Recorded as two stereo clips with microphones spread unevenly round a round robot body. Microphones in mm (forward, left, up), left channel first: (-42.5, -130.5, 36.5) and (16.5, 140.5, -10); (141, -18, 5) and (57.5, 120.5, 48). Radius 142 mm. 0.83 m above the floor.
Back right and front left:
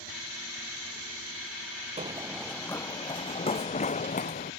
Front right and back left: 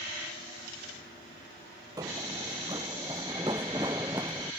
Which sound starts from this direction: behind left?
Running footsteps, at 2.0 s.